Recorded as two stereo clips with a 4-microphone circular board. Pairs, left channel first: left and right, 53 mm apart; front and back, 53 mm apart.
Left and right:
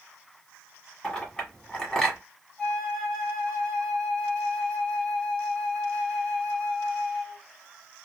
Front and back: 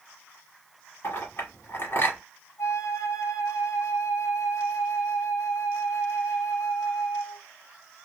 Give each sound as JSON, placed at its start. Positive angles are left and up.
{"t": 1.0, "sound": "a clink", "azimuth_deg": 10, "distance_m": 1.3}
{"t": 2.6, "sound": "a flute", "azimuth_deg": 15, "distance_m": 1.5}